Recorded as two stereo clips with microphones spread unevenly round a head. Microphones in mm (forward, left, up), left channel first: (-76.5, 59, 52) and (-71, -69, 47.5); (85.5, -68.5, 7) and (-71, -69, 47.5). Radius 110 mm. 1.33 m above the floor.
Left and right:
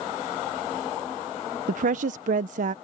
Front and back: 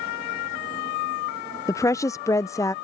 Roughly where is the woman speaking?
Ahead right.